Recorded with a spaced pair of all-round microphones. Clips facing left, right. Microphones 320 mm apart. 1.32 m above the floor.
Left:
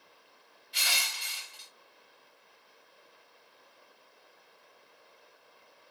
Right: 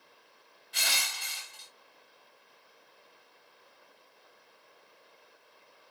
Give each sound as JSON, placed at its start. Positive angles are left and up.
{"t": 0.7, "sound": "crushing", "side_deg": -65, "distance_m": 0.9}